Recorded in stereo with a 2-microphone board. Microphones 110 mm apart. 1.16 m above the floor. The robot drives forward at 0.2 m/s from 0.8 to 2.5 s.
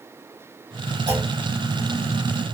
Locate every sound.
1.1 s a clunk: 65° right (ahead or behind), 1.6 m